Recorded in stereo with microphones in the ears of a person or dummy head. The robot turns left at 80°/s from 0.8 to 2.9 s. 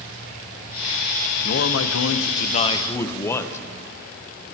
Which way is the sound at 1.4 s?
130° left.